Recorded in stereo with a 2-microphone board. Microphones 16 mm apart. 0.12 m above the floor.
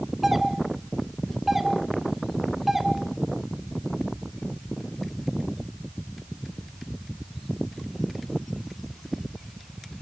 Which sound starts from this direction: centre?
A doorbell, at 0.2 s.